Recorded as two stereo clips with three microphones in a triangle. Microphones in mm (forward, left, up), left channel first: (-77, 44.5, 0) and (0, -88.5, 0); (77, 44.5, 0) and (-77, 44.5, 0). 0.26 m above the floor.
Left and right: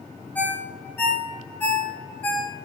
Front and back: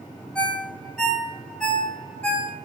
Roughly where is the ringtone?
Left.